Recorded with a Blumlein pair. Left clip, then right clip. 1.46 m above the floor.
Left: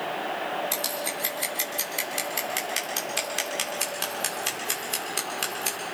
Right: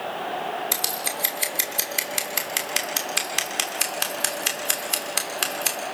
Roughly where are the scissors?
Ahead.